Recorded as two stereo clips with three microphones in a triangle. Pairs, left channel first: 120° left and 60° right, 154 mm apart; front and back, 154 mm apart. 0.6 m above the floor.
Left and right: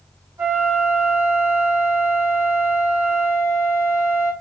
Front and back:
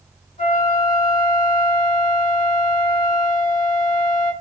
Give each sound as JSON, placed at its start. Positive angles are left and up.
{"t": 0.4, "sound": "a flute", "azimuth_deg": 5, "distance_m": 2.5}